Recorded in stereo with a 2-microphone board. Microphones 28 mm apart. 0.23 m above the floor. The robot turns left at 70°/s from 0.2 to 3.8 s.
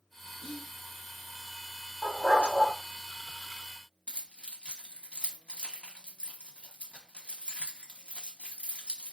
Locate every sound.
0.4 s whispering: 20° right (ahead or behind), 1.0 m; by 0.7 s 15° right (ahead or behind), 1.0 m
2.0 s a dog barking: 105° left, 2.5 m; by 2.7 s 55° left, 2.5 m
4.1 s keys jangling: 45° left (ahead or behind), 1.1 m